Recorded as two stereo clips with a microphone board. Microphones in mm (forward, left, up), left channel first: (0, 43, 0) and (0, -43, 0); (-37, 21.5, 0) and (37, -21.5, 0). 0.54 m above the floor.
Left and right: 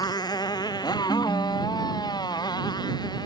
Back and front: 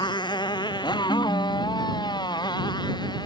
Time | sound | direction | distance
0.0 | a motorcycle | 125° left | ?
1.1 | a ringtone | 170° left | ?